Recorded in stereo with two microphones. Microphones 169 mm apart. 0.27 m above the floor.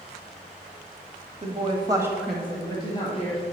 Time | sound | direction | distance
1.4 | a woman speaking | 45° right (ahead or behind) | 1.3 m